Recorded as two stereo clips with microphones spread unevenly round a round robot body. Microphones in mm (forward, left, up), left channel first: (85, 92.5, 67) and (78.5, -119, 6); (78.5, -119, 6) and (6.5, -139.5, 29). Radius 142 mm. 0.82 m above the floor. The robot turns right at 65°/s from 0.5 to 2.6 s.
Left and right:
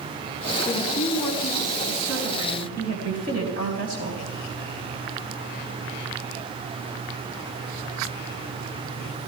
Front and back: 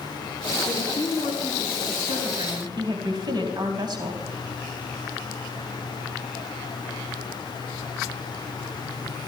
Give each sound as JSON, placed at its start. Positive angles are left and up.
{"t": 0.7, "sound": "a woman speaking", "azimuth_deg": 85, "distance_m": 5.0}